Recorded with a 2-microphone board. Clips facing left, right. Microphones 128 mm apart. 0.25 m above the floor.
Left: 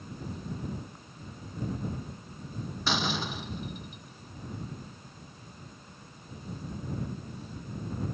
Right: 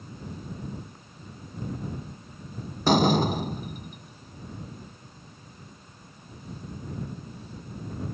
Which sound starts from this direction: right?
A door slam, at 2.9 s.